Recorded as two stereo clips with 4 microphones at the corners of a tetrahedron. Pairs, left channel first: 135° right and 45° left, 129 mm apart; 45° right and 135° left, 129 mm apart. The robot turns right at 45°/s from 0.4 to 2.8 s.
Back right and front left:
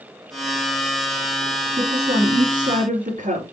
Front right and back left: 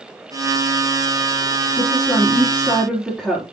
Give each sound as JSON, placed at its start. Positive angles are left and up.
{"t": 1.8, "sound": "a woman speaking", "azimuth_deg": 5, "distance_m": 5.0}